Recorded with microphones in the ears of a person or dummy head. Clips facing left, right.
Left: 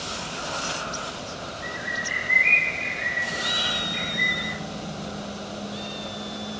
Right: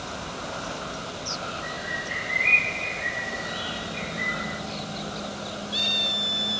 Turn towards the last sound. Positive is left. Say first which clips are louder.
# even
turn(degrees=60)  # may be behind; listen again after turning